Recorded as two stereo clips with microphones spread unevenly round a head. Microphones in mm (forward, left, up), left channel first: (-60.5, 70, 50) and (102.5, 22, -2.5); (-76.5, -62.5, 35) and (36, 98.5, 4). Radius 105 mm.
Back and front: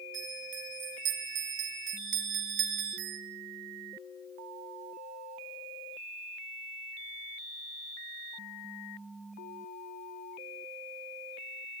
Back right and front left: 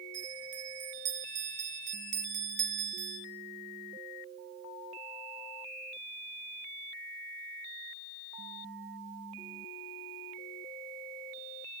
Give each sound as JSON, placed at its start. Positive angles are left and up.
{"t": 0.1, "sound": "a bell", "azimuth_deg": -5, "distance_m": 4.0}